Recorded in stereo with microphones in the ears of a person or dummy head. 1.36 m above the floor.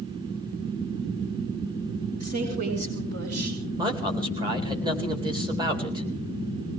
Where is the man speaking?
25° right (ahead or behind), 2 m.